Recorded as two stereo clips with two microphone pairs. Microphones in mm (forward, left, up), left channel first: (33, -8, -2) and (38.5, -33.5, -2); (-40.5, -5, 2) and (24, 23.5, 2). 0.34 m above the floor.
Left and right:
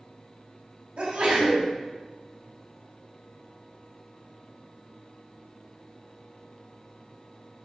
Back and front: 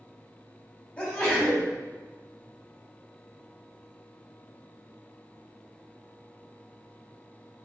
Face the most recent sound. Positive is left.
turn(degrees=-95)